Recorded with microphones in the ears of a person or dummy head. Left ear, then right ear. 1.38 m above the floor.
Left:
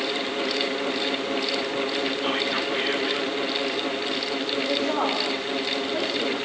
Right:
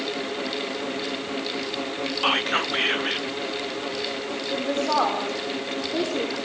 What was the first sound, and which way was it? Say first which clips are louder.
Whispering: right 2 dB; 35° right (ahead or behind).